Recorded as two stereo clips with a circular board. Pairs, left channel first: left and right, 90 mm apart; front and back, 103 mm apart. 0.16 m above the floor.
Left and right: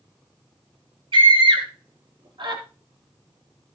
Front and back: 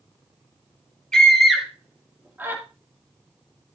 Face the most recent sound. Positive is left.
turn(degrees=-110)